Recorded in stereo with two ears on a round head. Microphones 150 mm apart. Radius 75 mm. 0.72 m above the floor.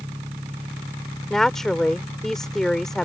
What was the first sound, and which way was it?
An engine running, 15° right (ahead or behind).